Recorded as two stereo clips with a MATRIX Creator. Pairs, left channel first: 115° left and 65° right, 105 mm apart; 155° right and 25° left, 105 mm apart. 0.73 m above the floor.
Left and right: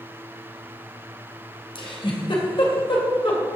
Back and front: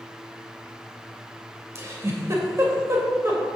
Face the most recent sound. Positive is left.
turn(degrees=85)